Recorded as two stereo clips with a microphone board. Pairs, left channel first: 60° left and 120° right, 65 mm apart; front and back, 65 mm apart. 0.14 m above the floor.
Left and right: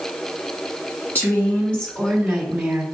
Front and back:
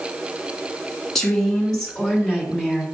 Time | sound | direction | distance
1.1 | a woman speaking | 80° left | 1.8 m